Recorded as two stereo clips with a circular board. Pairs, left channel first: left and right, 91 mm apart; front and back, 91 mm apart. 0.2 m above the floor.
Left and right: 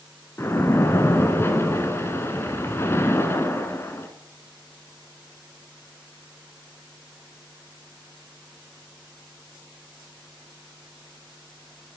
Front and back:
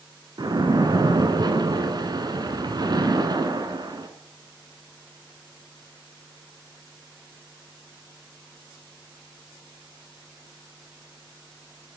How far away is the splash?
About 0.9 m.